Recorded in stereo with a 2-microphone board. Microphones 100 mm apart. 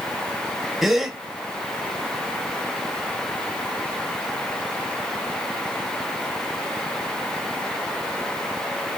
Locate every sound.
0.8 s a gasp: centre (ahead or behind), 0.6 m